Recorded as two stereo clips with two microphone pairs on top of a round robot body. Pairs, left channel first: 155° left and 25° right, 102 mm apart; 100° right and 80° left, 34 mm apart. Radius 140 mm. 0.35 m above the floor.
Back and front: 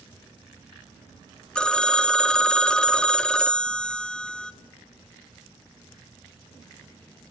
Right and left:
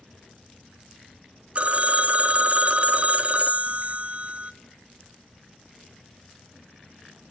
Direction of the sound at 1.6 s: 100° left.